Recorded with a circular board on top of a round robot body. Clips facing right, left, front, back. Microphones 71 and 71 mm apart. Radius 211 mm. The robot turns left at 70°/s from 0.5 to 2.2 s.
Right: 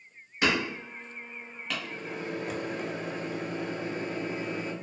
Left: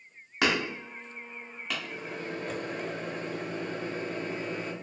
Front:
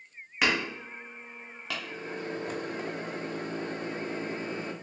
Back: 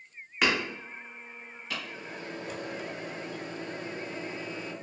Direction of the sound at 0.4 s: 90° left.